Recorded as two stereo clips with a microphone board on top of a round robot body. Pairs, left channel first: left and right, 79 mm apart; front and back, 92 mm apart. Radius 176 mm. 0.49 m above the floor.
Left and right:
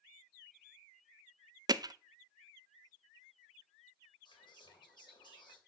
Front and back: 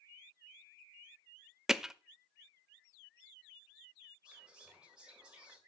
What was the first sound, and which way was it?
Hammering, 95° right.